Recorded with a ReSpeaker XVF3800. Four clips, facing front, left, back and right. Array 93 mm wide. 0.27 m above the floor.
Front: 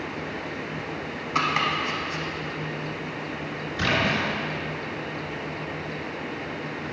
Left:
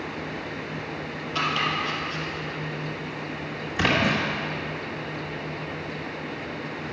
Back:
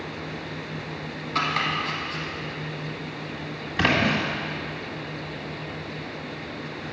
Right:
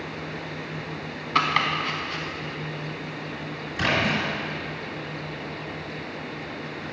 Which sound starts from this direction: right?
Chopping, at 1.4 s.